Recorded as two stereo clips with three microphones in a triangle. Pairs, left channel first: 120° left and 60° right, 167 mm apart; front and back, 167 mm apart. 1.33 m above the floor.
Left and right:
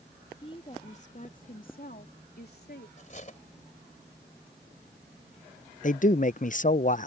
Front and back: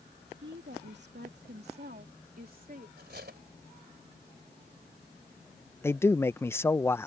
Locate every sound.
0.4 s a woman speaking: straight behind; by 2.9 s 145° left
3.0 s cutlery clinking: 165° left
5.8 s a man speaking: 75° left